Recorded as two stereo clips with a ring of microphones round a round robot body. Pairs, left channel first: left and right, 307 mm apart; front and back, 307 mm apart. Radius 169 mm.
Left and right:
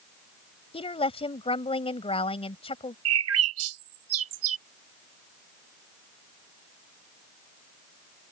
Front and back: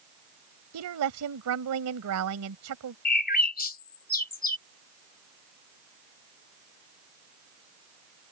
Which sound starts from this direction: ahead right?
A bird, at 3.0 s.